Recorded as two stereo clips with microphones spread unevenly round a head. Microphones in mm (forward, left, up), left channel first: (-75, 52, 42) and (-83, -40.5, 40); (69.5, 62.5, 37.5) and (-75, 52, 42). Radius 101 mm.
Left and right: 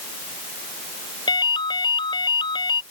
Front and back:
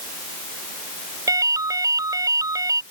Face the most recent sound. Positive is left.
turn(degrees=120)